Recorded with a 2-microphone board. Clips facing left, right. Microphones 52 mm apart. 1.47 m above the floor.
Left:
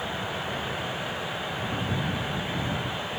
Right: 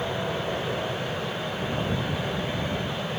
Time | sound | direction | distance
0.0 | an aircraft | 30° right (ahead or behind) | ?